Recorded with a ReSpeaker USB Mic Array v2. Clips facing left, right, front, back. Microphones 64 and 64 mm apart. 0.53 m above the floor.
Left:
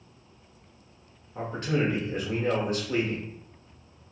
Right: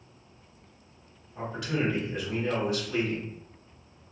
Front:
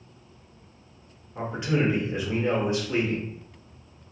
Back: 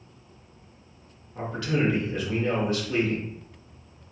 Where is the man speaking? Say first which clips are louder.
Left 3 dB, front 1 dB; 60° left, 1.0 m.